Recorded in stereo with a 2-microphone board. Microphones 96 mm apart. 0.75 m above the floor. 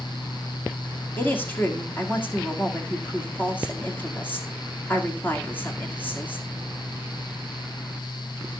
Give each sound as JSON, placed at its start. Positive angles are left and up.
{"t": 1.2, "sound": "a woman speaking", "side_deg": 20, "distance_m": 2.0}